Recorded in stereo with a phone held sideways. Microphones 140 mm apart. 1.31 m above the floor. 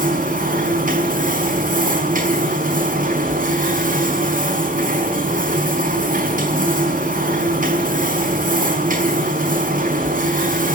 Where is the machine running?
80° right, 4.5 m.